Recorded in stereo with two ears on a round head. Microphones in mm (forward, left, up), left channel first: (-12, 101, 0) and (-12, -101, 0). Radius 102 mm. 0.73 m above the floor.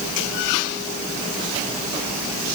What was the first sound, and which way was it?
Only background noise.